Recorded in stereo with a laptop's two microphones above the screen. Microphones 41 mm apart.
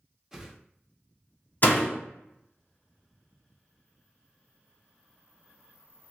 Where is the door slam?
45° left (ahead or behind), 0.8 m.